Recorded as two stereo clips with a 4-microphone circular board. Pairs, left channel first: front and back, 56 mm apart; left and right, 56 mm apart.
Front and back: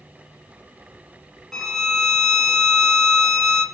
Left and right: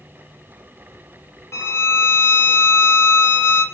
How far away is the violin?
About 1.4 m.